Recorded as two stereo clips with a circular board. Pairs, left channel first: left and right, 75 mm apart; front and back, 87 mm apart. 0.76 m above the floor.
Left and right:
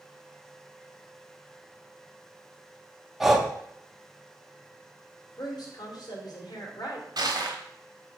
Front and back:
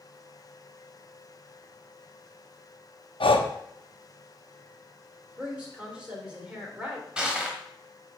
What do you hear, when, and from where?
3.2 s breathing: 5° right, 0.7 m
5.4 s a woman speaking: 105° left, 2.5 m
7.2 s crushing: 100° right, 1.1 m